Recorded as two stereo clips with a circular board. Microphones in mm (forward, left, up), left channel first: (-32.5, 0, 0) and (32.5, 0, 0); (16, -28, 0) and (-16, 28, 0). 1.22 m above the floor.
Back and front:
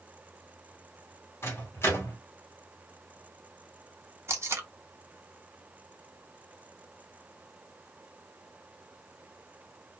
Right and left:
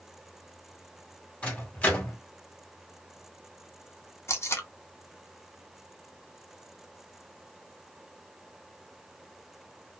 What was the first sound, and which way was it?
A microwave, 130° right.